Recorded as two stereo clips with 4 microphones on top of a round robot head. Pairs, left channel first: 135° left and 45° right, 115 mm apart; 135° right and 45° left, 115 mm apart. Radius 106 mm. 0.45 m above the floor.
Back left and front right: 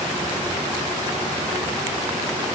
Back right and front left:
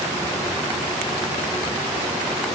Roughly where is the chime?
No chime in this recording.